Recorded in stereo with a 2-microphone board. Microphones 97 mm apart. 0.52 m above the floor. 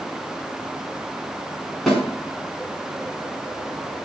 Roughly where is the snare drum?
Centre.